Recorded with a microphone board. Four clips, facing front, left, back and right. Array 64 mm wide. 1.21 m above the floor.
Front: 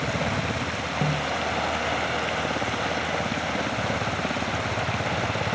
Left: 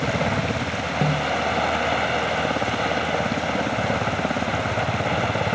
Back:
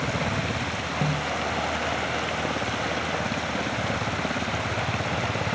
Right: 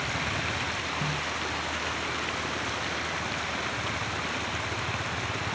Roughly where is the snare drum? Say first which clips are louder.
Left 9 dB, front 1 dB; left.